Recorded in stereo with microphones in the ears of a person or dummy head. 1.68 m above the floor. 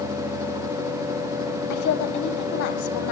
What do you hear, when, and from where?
1.7 s a woman speaking: 65° left (ahead or behind), 1.1 m